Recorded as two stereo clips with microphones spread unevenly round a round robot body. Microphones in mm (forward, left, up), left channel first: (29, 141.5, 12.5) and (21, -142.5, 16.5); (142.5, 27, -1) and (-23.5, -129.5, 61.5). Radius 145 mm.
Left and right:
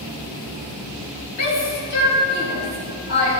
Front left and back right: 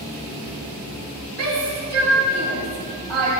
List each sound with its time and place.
1.4 s a shout: 125° left, 5 m